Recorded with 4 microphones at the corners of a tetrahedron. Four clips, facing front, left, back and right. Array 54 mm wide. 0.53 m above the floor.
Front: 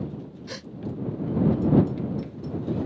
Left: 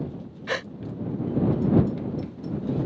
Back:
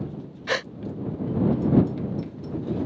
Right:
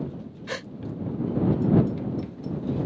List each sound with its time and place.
0.5 s a gasp: 155° left